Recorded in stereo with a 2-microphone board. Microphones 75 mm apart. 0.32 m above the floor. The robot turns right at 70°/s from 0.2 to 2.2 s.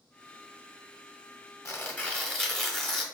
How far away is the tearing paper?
About 1.0 m.